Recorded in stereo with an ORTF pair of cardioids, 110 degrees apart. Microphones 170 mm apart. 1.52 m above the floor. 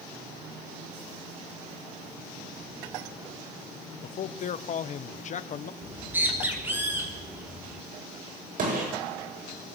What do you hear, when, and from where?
4.0 s a man speaking: 45° left, 1.3 m
5.8 s a bird: 10° right, 4.5 m
8.6 s a gunshot: 55° right, 8.5 m